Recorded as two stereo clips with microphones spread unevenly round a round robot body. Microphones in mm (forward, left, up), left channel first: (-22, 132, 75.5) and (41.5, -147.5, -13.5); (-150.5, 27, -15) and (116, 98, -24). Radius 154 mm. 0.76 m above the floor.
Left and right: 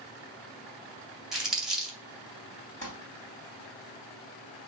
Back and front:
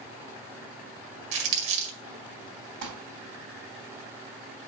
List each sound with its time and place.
1.3 s crumpling: 10° left, 1.9 m
2.8 s crumpling: 35° left, 3 m